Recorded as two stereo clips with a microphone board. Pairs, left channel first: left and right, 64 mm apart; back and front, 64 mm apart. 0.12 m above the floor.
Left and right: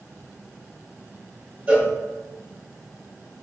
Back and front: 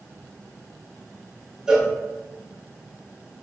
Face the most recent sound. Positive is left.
turn(degrees=-65)